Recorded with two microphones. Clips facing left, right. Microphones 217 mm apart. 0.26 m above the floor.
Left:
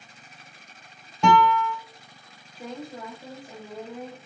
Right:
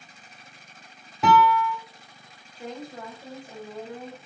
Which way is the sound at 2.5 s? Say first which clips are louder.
Even; 5° left (ahead or behind).